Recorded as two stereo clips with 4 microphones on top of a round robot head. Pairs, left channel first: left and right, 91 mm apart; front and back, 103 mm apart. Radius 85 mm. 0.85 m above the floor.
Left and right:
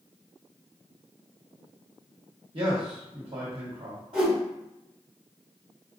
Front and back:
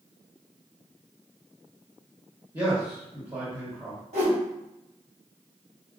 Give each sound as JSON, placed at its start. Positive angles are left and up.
{"t": 2.5, "sound": "a man speaking", "azimuth_deg": -115, "distance_m": 1.3}
{"t": 4.1, "sound": "a whoosh", "azimuth_deg": -145, "distance_m": 1.9}